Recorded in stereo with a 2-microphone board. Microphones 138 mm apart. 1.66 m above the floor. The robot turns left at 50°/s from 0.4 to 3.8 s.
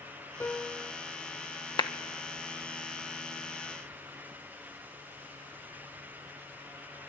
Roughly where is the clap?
Left.